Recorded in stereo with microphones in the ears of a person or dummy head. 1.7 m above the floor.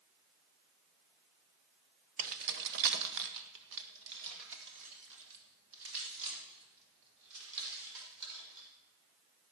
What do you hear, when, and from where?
2.2 s keys jangling: 40° right (ahead or behind), 0.6 m; by 8.7 s 70° right (ahead or behind), 5.5 m